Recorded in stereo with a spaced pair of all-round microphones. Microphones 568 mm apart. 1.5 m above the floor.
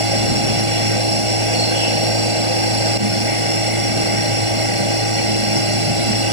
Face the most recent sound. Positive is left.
turn(degrees=-60)  # may be behind; listen again after turning